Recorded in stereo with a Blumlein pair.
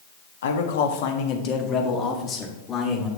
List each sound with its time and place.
0.4 s a man speaking: 65° left, 1.2 m; by 3.1 s 20° left, 2.5 m